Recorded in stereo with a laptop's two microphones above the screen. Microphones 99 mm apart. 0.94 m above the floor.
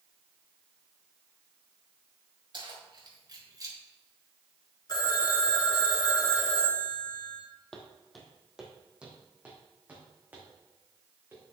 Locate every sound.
2.5 s keys jangling: 55° right (ahead or behind), 3.5 m; by 3.8 s 35° right (ahead or behind), 1.8 m
4.9 s a phone ringing: 45° left (ahead or behind), 2.5 m
7.7 s footsteps: 10° left (ahead or behind), 2 m; by 11.4 s 25° right (ahead or behind), 5.5 m